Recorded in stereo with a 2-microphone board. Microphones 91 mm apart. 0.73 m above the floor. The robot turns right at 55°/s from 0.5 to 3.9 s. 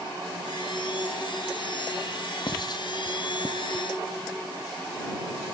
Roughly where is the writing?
Left.